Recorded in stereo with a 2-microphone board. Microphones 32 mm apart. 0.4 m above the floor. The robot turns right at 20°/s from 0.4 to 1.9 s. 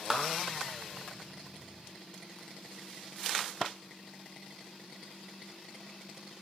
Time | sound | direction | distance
0.1 | a clap | 25° right (ahead or behind) | 0.7 m